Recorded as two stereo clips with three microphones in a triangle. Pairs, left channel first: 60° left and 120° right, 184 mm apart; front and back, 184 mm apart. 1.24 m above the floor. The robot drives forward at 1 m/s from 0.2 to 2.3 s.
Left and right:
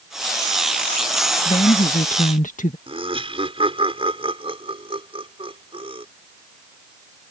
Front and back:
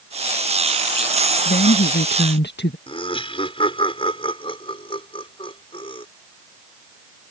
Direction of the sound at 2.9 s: 60° right.